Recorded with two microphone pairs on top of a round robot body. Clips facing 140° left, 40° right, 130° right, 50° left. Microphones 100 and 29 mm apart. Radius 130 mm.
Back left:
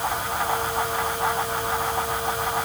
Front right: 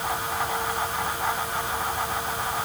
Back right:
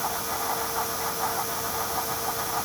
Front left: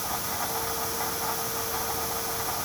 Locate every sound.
Only background noise.